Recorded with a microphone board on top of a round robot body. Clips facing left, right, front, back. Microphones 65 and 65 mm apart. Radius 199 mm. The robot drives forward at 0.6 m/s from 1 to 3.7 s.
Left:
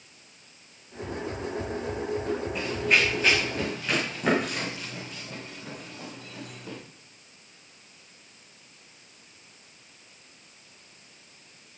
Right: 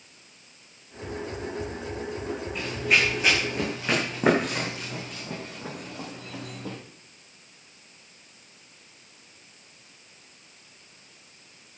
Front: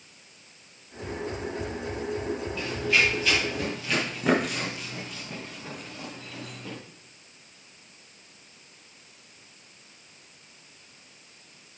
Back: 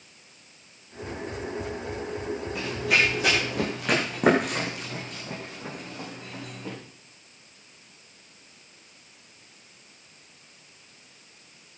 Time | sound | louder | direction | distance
2.5 | running footsteps | right 1 dB, back 1 dB | 175° left | 4 m